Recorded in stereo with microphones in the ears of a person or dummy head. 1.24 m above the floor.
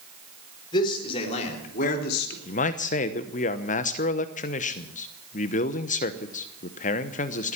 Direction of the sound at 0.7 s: 25° left (ahead or behind).